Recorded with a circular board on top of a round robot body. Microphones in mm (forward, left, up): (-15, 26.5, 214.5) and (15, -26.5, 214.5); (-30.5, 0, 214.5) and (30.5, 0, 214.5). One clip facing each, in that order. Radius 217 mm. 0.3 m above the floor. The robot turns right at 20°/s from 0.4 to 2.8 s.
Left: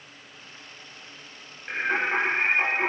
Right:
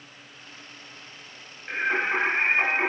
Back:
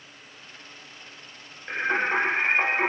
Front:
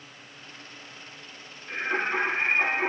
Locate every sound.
1.7 s singing: 155° right, 0.8 m; by 2.9 s 130° right, 0.8 m